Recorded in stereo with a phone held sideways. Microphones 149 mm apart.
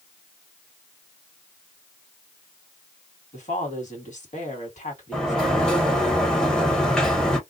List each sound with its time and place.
3.3 s a woman speaking: 60° left (ahead or behind), 1.8 m
5.1 s a sliding door: 5° left (ahead or behind), 1.1 m